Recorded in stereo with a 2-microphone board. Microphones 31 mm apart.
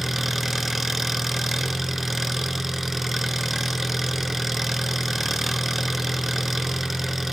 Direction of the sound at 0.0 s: 5° right (ahead or behind).